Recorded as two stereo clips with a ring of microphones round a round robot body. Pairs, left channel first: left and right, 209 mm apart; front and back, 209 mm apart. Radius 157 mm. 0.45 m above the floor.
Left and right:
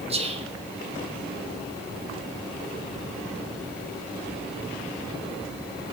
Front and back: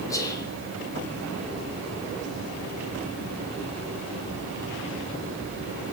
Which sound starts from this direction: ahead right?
Whispering, at 0.1 s.